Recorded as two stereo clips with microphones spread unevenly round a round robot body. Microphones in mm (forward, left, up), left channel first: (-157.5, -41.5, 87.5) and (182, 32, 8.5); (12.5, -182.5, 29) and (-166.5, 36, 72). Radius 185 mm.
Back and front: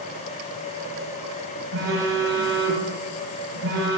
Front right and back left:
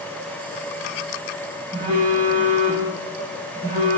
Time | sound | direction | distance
1.7 | a phone buzzing | 75° left | 0.6 m